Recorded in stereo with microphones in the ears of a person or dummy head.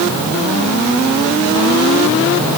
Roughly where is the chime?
No chime in this recording.